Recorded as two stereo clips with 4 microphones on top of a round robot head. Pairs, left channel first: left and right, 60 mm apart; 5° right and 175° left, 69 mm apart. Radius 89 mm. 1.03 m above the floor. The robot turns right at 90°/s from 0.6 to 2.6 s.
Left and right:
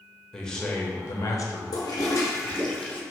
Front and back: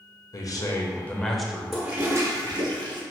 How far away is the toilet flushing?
About 0.9 m.